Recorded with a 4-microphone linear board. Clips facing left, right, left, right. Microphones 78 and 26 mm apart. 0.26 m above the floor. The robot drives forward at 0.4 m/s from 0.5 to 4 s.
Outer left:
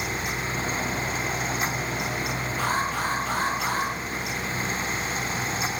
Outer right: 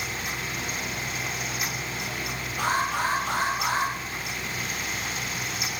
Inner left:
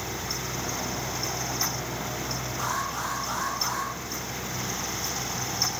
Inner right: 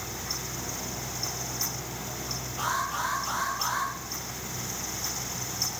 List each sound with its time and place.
2.6 s an alarm: 75° right (ahead or behind), 9 m; by 3.9 s 70° right (ahead or behind), 9.5 m